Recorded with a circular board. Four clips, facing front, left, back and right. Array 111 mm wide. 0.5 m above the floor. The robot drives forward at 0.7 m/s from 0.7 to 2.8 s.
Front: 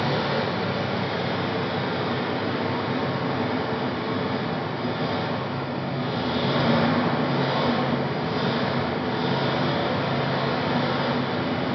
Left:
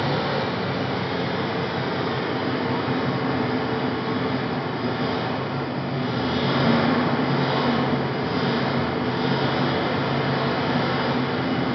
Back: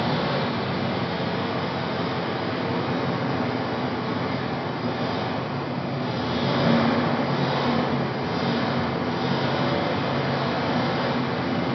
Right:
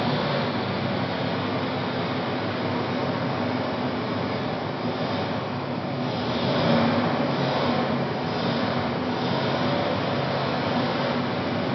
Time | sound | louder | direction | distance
0.0 | an engine running | left 1 dB, even | 55° left | 2.5 m